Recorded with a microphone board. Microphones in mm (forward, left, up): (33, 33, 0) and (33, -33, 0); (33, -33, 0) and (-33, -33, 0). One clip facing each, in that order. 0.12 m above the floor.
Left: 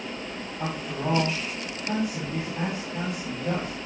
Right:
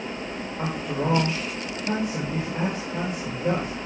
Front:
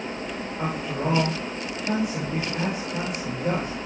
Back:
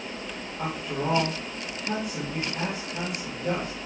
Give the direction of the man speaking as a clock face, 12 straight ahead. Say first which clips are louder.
Right 3 dB, front 2 dB; 3 o'clock.